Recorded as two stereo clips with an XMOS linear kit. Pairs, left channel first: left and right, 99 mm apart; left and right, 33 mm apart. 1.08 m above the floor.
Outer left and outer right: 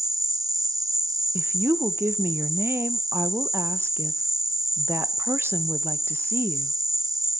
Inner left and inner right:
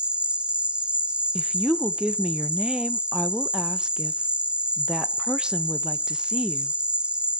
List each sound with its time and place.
0.0 s an insect: 35° right (ahead or behind), 1.2 m
1.4 s a woman speaking: 25° right (ahead or behind), 0.8 m